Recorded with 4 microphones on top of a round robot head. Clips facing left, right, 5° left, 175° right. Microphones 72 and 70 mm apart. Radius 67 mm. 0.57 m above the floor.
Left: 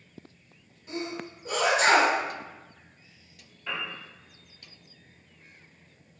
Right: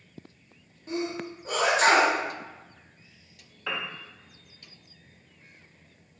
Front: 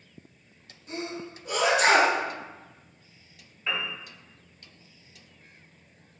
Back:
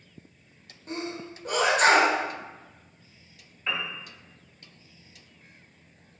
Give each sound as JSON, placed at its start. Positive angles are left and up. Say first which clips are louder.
{"t": 0.9, "sound": "a sneeze", "louder": "right 3 dB, back 1 dB", "azimuth_deg": -135, "distance_m": 1.7}
{"t": 3.7, "sound": "a piano", "louder": "right 1 dB, even", "azimuth_deg": -85, "distance_m": 0.7}